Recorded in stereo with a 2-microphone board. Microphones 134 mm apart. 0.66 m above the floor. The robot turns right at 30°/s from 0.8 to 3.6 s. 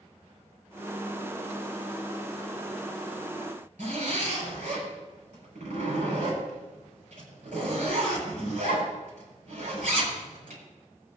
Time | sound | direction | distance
3.8 | a zipper | 75° right (ahead or behind) | 7.5 m